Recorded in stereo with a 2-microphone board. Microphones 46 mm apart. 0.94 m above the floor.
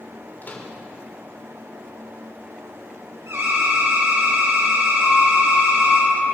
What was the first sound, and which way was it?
A microwave, 40° left (ahead or behind).